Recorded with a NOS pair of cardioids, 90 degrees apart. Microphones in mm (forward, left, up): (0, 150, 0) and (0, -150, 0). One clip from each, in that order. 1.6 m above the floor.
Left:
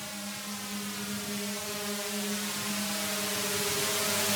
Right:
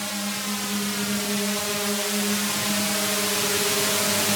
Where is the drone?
65° right; by 4.4 s 60° right.